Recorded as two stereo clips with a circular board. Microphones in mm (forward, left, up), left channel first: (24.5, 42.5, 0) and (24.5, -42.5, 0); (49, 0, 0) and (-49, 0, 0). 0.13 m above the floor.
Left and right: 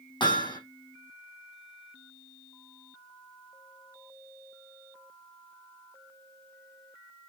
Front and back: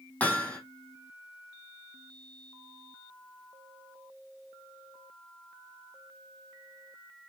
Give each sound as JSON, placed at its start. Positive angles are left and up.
{"t": 0.2, "sound": "hammering", "azimuth_deg": 75, "distance_m": 3.5}